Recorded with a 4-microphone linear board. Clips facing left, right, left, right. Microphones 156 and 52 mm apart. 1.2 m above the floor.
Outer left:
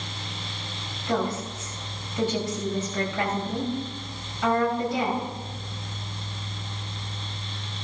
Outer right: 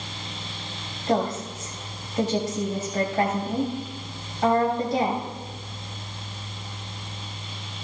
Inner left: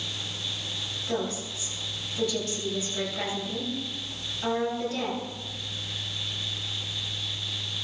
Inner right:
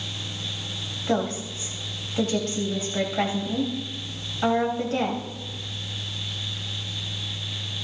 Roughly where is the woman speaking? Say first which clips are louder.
Outer right 3 dB, inner right 6 dB; right.